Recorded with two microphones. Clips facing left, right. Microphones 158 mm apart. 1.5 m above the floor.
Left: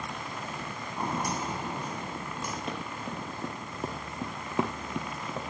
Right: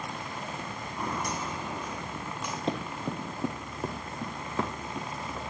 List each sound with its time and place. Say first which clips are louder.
1.0 s footsteps: left 2 dB; 30° left (ahead or behind), 3.5 m; by 2.6 s 45° left (ahead or behind), 5.5 m
2.7 s running footsteps: right 4 dB; 30° right (ahead or behind), 1.9 m; by 5.5 s 35° left (ahead or behind), 2 m